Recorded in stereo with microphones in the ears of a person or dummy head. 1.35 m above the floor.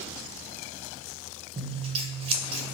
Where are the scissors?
35° right (ahead or behind), 0.7 m.